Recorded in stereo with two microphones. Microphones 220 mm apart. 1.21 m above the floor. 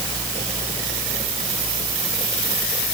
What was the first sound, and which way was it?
Only background noise.